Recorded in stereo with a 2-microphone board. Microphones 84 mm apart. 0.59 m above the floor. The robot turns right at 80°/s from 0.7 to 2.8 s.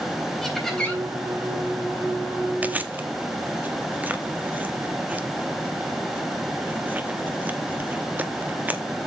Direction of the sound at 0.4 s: 5° left (ahead or behind).